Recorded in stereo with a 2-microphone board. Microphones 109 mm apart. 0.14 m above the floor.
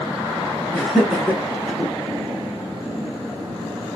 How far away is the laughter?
About 1.9 m.